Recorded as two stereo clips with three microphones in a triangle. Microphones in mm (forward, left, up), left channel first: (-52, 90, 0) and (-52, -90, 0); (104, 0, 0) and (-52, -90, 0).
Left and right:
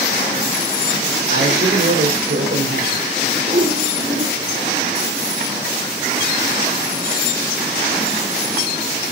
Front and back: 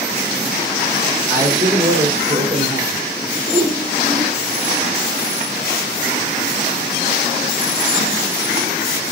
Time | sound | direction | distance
1.3 | a man speaking | 75° right | 4 m
3.5 | a whoosh | 60° right | 2.5 m